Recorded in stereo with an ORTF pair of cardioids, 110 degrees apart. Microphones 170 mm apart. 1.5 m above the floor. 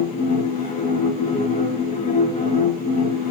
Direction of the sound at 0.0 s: 50° left.